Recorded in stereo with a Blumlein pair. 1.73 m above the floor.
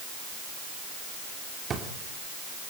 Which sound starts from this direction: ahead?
A drawer, at 1.7 s.